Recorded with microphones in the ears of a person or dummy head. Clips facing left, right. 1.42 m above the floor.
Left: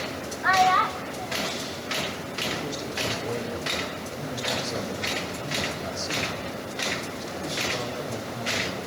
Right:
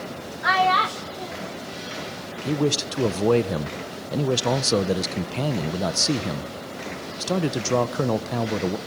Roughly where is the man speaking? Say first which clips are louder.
Right 11 dB; right.